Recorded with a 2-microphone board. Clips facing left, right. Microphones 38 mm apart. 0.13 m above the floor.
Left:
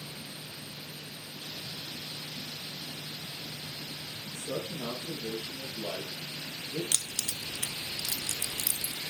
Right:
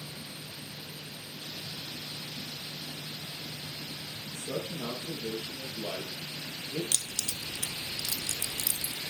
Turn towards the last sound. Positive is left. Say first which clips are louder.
# even
turn(degrees=25)  # may be behind; listen again after turning